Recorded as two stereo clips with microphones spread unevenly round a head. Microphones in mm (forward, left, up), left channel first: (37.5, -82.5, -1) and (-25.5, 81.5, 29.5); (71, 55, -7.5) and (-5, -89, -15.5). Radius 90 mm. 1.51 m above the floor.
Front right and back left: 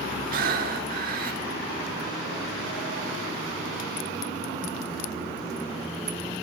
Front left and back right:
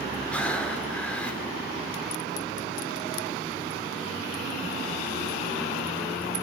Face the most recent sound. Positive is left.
turn(degrees=145)